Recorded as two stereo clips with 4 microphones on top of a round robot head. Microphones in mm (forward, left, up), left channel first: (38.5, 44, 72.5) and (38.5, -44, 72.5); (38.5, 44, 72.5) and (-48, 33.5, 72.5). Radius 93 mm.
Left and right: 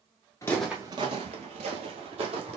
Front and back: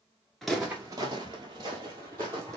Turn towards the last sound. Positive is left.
turn(degrees=-110)